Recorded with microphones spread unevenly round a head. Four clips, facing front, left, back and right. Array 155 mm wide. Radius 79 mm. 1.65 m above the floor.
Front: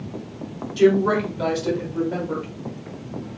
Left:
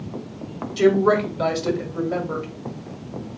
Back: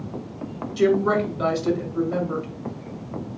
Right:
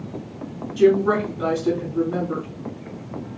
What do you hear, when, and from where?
0.8 s a woman speaking: 70° left, 1.1 m